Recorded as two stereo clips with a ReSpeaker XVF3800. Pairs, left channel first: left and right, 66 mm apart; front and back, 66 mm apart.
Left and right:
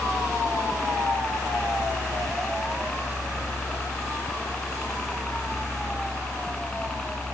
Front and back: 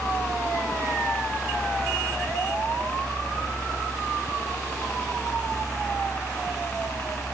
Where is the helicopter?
35° left; by 7.3 s 25° left.